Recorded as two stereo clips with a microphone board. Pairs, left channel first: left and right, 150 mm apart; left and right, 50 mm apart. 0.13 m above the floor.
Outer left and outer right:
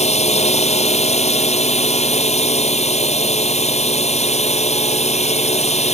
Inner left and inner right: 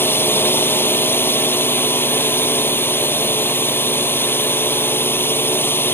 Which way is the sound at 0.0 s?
50° left (ahead or behind).